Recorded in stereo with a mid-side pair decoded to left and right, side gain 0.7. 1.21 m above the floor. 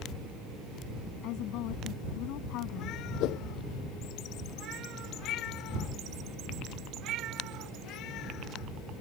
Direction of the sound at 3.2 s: 60° left.